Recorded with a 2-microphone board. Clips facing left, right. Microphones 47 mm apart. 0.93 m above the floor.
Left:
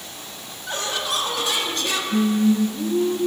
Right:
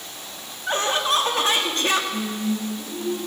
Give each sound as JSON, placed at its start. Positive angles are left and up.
{"t": 0.7, "sound": "laughter", "side_deg": -35, "distance_m": 1.3}
{"t": 2.1, "sound": "singing", "side_deg": 50, "distance_m": 2.5}